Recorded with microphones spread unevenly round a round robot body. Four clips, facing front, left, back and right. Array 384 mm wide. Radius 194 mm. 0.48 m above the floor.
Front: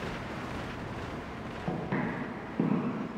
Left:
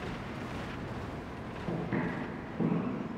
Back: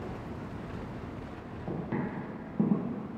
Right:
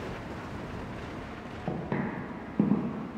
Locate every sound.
1.7 s footsteps: 65° right, 1.1 m; by 3.2 s 115° right, 0.6 m